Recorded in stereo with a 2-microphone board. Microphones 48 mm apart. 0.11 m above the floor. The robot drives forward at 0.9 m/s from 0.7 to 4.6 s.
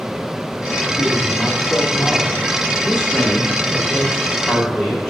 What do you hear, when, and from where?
1.0 s a man speaking: 40° left (ahead or behind), 9 m; by 2.5 s 35° left (ahead or behind), 10 m
2.8 s a woman speaking: 20° left (ahead or behind), 9 m; by 5.1 s 15° left (ahead or behind), 10.5 m